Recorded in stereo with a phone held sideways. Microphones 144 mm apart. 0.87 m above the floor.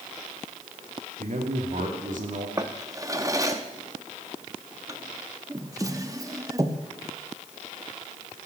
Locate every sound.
1.2 s a man speaking: 60° right (ahead or behind), 2 m
2.6 s a drawer: 25° right (ahead or behind), 0.9 m